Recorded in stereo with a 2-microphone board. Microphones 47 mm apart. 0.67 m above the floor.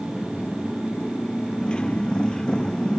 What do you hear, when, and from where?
0.0 s a motorcycle: 20° left (ahead or behind); by 3.0 s 15° left (ahead or behind)